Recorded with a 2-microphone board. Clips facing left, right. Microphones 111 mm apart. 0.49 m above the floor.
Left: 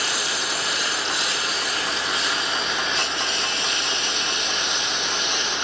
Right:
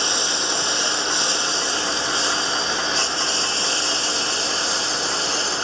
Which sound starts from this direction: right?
A lawn mower, at 0.0 s.